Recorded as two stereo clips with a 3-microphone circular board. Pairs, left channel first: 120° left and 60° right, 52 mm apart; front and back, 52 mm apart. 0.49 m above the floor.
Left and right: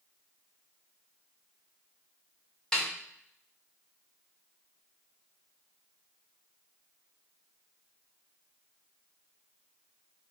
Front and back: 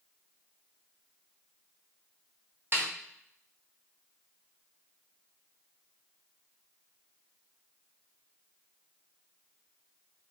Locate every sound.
2.7 s a snare drum: 165° right, 1.2 m